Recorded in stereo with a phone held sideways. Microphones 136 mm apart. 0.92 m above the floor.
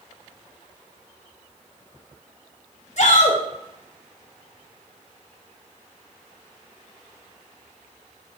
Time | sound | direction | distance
3.0 | a shout | 55° left (ahead or behind) | 0.9 m